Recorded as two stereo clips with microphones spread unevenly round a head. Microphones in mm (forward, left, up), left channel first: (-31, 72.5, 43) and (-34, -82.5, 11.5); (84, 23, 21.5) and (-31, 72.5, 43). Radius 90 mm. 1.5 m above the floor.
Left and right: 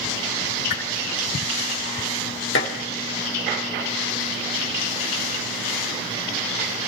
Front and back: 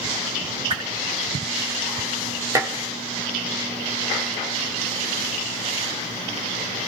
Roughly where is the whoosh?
Left.